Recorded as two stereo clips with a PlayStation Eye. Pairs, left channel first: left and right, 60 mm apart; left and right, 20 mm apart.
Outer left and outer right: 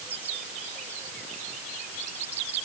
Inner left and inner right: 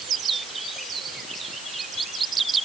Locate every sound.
Only background noise.